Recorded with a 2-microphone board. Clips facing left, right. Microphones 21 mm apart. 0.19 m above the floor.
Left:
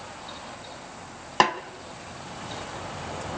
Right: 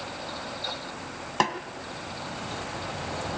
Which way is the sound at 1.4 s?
20° left (ahead or behind).